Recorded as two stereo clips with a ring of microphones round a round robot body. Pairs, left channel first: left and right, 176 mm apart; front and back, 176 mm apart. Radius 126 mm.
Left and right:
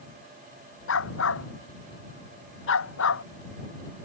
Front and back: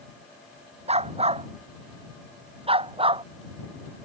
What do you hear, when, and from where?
0.9 s a dog barking: 125° left; by 3.2 s 120° left